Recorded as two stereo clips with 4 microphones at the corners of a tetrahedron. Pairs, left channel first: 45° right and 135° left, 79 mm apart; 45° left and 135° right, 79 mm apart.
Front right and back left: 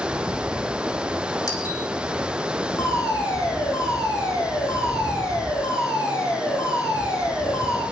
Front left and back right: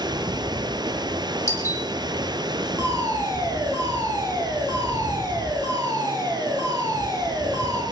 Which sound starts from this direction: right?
A fire alarm, at 2.8 s.